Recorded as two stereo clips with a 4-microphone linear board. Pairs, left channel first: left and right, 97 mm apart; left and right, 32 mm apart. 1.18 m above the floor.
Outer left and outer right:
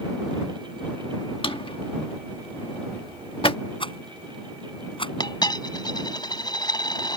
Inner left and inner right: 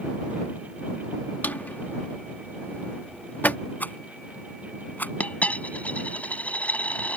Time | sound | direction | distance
1.4 | a drawer | 65° left (ahead or behind) | ?
3.8 | a rattle | 65° left (ahead or behind) | ?
5.2 | a dropped coin | 50° left (ahead or behind) | ?